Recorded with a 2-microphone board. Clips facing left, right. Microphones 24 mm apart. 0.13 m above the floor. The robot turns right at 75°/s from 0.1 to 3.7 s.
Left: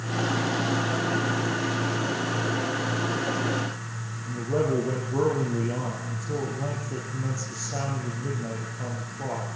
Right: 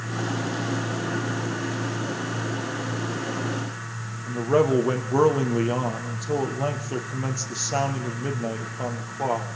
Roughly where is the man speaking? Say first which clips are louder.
Right 5 dB; right.